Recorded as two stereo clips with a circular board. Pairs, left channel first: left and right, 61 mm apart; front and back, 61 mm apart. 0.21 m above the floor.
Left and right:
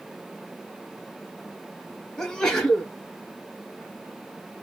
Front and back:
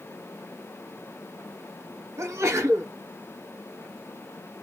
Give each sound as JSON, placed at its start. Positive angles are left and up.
{"t": 2.2, "sound": "a sneeze", "azimuth_deg": 165, "distance_m": 1.8}